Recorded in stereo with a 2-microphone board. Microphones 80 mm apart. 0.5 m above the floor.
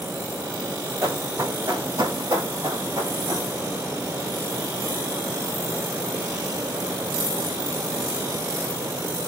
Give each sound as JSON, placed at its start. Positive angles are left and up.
{"t": 1.0, "sound": "running footsteps", "side_deg": -40, "distance_m": 1.2}